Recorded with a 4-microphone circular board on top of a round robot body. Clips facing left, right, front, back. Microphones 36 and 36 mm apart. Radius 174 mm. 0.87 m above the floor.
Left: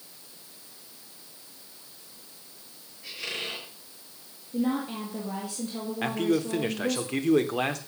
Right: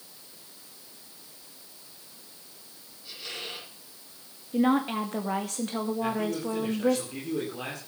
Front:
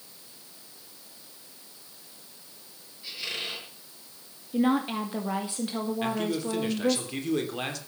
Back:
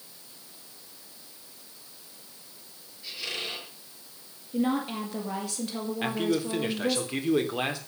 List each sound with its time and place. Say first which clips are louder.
3.0 s a squeak: left 4 dB, even; 75° left, 7.5 m
4.5 s a woman speaking: right 4 dB, front 3 dB; 65° right, 2.5 m
6.0 s a man speaking: left 3 dB, back 4 dB; 105° left, 3 m